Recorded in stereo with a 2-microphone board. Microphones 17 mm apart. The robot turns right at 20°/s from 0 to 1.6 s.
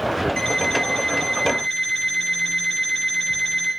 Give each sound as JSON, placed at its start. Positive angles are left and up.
{"t": 0.4, "sound": "an alarm clock", "side_deg": 25, "distance_m": 6.0}